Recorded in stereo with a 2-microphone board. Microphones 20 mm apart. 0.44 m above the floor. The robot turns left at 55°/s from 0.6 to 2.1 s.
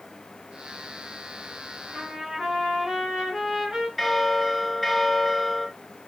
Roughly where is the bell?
Centre.